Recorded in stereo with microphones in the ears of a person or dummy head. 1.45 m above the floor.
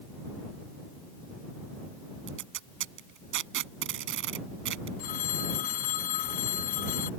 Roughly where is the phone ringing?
Left.